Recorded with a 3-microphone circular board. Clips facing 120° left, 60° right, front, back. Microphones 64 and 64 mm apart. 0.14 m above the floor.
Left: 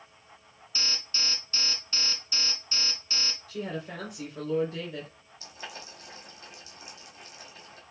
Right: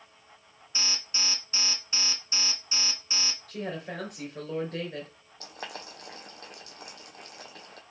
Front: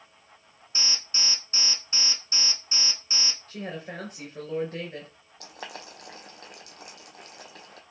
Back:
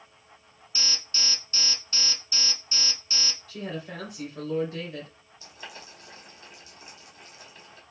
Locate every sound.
0.8 s an alarm: 5° right, 0.8 m
3.5 s a woman speaking: 40° right, 2.5 m
5.4 s boiling: 25° right, 1.1 m